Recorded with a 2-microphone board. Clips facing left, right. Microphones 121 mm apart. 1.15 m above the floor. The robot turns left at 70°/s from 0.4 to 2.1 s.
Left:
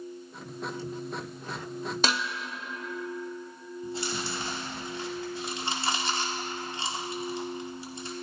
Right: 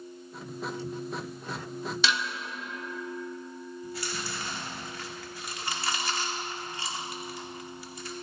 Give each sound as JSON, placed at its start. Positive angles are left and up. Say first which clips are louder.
{"t": 2.0, "sound": "dishes clattering", "louder": "left 1 dB", "side_deg": 40, "distance_m": 0.8}
{"t": 3.8, "sound": "chewing", "louder": "left 5 dB", "side_deg": 25, "distance_m": 2.0}